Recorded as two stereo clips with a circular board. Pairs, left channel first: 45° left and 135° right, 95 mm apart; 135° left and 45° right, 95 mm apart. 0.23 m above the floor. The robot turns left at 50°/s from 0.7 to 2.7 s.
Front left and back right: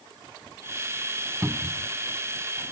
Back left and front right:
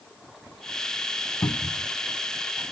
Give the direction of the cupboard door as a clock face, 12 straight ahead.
7 o'clock.